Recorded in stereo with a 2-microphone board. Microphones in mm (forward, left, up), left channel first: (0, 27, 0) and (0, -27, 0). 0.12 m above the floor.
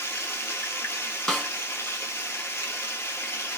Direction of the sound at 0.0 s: 60° left (ahead or behind).